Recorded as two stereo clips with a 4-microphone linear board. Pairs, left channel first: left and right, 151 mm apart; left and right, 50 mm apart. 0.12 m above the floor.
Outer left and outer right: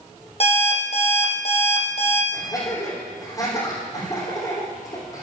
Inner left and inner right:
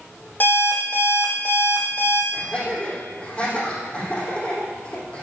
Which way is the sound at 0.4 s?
45° left (ahead or behind).